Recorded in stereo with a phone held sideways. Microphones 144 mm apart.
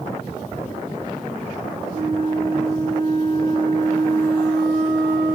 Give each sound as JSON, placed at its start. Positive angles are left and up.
{"t": 1.9, "sound": "a flute", "side_deg": -70, "distance_m": 0.9}